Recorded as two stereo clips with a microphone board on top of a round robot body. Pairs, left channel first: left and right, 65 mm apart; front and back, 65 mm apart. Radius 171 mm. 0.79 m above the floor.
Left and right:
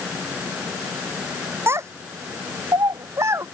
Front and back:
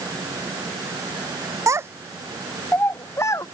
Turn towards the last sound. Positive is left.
turn(degrees=-40)